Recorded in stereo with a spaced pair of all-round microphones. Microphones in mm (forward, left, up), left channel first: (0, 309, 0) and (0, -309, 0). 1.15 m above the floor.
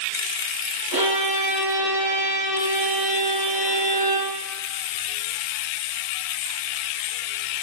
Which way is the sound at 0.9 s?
35° right (ahead or behind).